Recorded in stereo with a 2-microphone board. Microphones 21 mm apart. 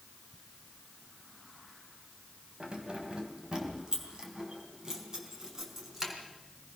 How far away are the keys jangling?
About 2.5 m.